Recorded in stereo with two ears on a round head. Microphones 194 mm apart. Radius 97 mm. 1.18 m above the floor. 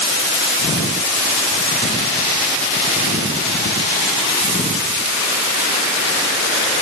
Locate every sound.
Only background noise.